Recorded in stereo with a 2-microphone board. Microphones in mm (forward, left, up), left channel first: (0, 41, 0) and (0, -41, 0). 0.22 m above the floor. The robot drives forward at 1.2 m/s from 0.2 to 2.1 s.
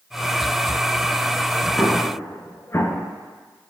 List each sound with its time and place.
1.8 s an explosion: 30° left (ahead or behind), 1.9 m; by 3.1 s 35° left (ahead or behind), 1.6 m